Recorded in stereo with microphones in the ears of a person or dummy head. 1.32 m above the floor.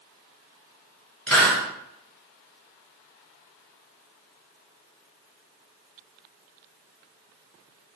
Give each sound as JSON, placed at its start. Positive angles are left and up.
{"t": 1.3, "sound": "a hiss", "side_deg": 5, "distance_m": 2.5}